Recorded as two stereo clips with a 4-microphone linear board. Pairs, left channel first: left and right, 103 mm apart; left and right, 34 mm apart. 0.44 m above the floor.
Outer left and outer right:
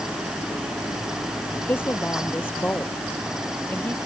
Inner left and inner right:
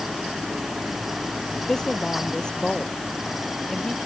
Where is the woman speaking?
20° left (ahead or behind).